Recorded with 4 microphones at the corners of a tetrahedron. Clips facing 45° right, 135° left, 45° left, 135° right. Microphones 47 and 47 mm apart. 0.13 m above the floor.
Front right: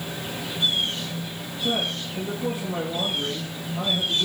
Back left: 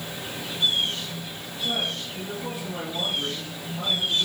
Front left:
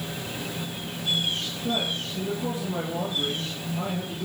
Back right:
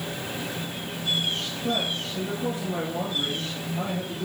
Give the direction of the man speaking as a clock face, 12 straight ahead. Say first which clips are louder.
Front right 2 dB, back right 1 dB; 3 o'clock.